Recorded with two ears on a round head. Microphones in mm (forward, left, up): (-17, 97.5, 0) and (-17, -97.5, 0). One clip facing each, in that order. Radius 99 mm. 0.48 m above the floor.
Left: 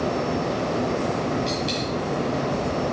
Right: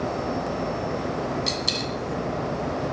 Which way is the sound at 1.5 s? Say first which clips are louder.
Left 3 dB; 65° right (ahead or behind).